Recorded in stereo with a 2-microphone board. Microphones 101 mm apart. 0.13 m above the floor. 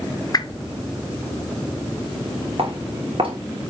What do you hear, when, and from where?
0.3 s a whoosh: 40° left (ahead or behind), 0.5 m
2.6 s footsteps: 60° right (ahead or behind), 3.5 m